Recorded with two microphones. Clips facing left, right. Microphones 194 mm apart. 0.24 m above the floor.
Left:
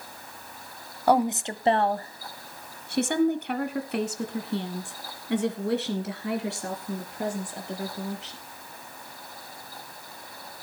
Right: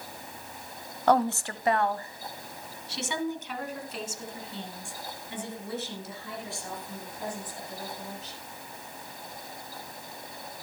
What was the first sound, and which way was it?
A woman speaking, 10° left (ahead or behind).